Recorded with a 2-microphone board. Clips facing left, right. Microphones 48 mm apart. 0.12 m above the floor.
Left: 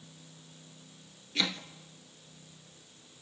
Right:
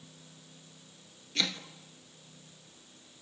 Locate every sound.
1.4 s chopping: 5° left (ahead or behind), 1.2 m